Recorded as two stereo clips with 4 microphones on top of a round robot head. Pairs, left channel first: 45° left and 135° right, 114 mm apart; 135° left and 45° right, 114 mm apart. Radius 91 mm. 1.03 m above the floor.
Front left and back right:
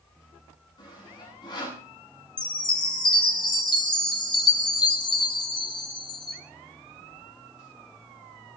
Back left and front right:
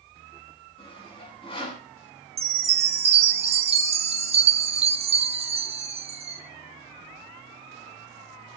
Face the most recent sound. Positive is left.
turn(degrees=-10)